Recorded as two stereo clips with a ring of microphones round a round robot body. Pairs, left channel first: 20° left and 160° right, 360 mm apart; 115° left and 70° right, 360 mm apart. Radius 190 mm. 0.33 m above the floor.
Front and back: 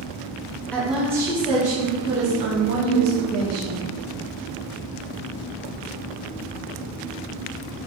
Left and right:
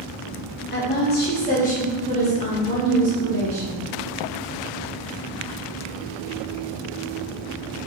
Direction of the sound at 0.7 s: 105° left.